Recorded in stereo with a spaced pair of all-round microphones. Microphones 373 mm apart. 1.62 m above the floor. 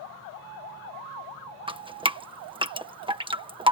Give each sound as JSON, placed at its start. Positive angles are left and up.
{"t": 1.7, "sound": "dripping", "side_deg": -15}